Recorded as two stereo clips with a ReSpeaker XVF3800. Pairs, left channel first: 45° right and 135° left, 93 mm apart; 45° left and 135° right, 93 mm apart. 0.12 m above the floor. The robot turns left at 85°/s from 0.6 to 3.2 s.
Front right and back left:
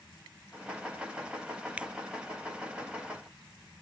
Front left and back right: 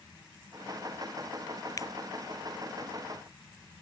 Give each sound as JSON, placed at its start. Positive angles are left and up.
{"t": 1.8, "sound": "a finger snap", "azimuth_deg": 65}